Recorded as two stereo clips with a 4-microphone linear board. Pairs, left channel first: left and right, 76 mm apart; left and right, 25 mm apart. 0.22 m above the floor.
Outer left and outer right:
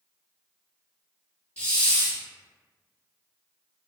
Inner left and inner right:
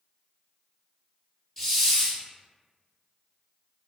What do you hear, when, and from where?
1.6 s a hiss: 15° left (ahead or behind), 0.8 m